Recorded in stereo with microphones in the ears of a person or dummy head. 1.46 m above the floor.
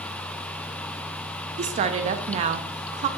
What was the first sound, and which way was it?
A woman speaking, 35° right (ahead or behind).